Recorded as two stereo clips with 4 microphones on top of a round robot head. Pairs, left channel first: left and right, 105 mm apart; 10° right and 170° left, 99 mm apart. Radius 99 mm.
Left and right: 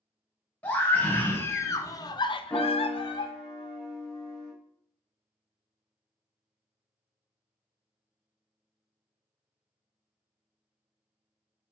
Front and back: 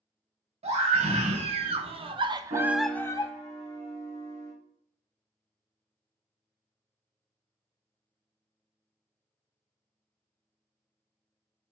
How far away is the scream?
About 1.6 m.